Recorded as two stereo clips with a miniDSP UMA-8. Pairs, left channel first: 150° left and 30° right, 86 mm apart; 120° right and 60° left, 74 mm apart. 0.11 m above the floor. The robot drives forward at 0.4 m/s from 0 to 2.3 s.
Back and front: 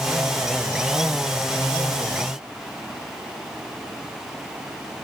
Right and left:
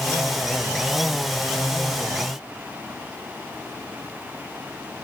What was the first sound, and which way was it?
Only background noise.